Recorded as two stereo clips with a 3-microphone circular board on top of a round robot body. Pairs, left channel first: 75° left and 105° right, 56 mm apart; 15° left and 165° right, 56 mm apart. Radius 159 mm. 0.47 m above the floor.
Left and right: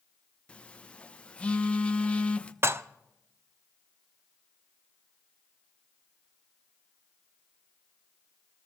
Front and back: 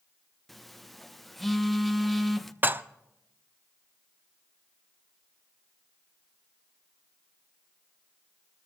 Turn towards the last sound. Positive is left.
turn(degrees=-125)